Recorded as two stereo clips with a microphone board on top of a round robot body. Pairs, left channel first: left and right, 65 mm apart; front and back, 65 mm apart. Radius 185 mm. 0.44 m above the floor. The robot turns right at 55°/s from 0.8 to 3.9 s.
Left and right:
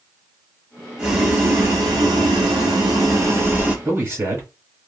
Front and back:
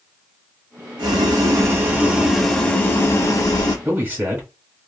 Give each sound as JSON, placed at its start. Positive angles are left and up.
{"t": 1.0, "sound": "boiling", "azimuth_deg": -170, "distance_m": 0.8}
{"t": 3.9, "sound": "a man speaking", "azimuth_deg": -135, "distance_m": 2.0}